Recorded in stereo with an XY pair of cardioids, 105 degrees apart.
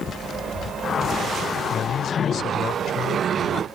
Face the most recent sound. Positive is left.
turn(degrees=60)